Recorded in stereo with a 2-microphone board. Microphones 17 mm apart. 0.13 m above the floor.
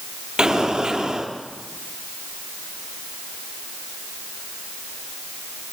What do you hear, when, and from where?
0.4 s an explosion: 50° right (ahead or behind), 4 m